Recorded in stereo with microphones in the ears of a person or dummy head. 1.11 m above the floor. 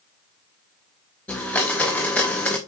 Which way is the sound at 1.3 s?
5° left (ahead or behind).